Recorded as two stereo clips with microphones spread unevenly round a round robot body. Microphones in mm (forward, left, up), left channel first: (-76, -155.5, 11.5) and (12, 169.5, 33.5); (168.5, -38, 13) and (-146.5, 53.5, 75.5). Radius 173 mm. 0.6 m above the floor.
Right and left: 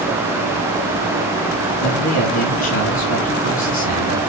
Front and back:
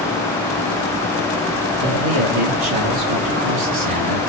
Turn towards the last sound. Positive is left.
turn(degrees=-170)